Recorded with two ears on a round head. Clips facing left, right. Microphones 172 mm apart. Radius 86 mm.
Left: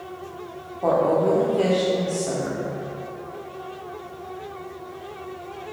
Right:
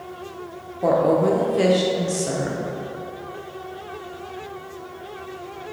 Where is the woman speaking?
20° right (ahead or behind), 0.7 m.